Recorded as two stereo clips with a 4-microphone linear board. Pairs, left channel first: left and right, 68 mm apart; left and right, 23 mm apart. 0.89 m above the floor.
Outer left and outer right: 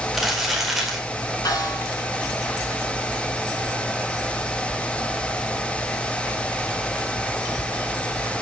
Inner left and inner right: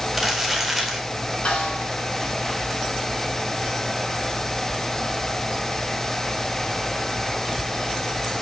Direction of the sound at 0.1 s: 5° right (ahead or behind).